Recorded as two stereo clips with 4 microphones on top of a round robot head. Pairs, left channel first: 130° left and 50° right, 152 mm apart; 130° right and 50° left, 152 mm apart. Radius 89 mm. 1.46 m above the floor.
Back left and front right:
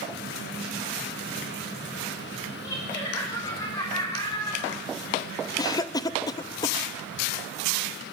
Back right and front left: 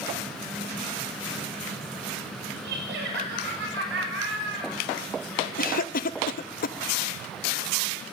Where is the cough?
160° right, 0.5 m.